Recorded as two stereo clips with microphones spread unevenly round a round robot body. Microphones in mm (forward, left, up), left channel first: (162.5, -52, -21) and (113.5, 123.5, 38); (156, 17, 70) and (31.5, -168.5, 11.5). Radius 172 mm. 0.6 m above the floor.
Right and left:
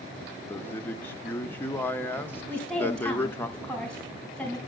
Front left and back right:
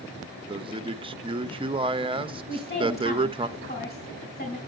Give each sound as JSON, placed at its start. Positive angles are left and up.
{"t": 0.5, "sound": "a man speaking", "azimuth_deg": -115, "distance_m": 0.6}
{"t": 2.5, "sound": "a woman speaking", "azimuth_deg": 10, "distance_m": 4.0}